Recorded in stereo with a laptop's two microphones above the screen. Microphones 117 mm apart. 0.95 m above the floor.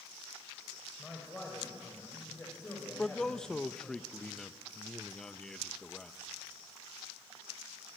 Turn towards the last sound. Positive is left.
turn(degrees=5)  # may be behind; listen again after turning